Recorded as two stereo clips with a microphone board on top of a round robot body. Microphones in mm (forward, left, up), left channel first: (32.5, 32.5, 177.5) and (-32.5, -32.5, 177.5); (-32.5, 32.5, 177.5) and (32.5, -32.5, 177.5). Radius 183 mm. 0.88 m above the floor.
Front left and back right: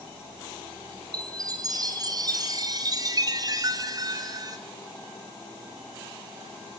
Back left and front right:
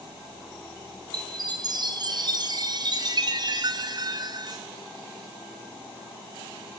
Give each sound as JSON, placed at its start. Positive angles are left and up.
{"t": 1.1, "sound": "a chime", "azimuth_deg": -90, "distance_m": 2.0}